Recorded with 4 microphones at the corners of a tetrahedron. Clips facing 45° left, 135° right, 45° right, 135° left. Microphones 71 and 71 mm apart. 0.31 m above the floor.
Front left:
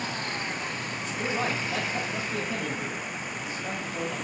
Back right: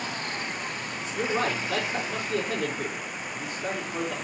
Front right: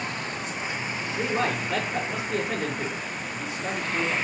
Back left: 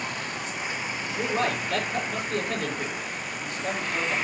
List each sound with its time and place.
1.1 s a man speaking: 130° right, 5 m